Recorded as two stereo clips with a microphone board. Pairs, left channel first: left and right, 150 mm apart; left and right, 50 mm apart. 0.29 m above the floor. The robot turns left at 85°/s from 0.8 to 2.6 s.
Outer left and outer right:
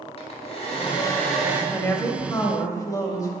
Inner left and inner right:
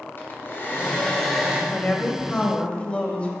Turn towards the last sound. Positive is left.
turn(degrees=25)  # may be behind; listen again after turning